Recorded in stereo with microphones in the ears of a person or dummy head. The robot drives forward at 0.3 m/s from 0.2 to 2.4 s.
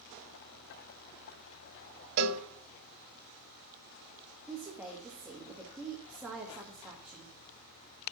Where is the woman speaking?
5° right (ahead or behind), 1.6 m.